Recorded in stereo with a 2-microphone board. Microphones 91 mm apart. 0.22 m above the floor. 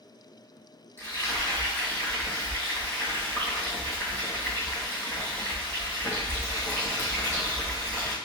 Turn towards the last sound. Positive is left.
turn(degrees=25)  # may be behind; listen again after turning